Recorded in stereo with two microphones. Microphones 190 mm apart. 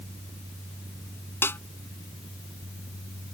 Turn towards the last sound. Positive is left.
turn(degrees=10)  # may be behind; listen again after turning